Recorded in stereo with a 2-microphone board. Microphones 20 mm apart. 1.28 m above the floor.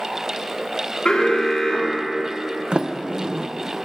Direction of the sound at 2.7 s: 60° right (ahead or behind).